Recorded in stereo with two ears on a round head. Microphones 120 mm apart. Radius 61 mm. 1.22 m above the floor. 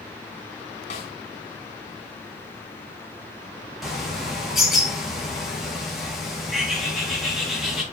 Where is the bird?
Centre (ahead or behind), 1.7 m.